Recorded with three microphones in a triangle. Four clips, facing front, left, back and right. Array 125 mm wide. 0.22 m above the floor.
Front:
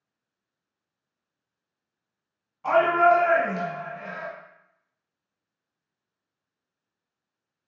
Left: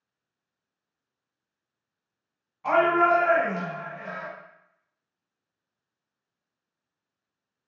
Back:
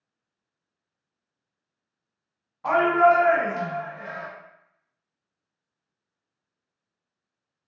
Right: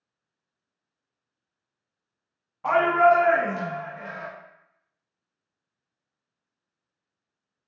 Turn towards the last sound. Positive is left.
turn(degrees=170)